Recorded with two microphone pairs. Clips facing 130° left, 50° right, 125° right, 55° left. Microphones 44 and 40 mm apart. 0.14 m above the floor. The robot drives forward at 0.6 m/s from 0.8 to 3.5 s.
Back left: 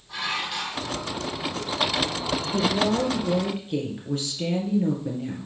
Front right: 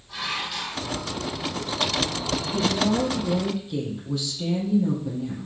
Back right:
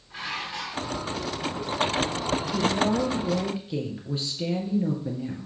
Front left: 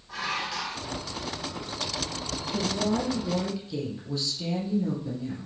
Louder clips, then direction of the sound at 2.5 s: Even, back right 2 dB; 175° left.